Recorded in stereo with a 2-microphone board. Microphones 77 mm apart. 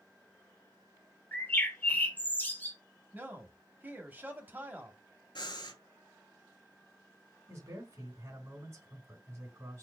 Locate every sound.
1.3 s a bird: 25° left (ahead or behind), 1.1 m
3.1 s a man speaking: 25° right (ahead or behind), 1.0 m
5.3 s breathing: 75° left (ahead or behind), 0.6 m
7.5 s a man speaking: 35° right (ahead or behind), 2.5 m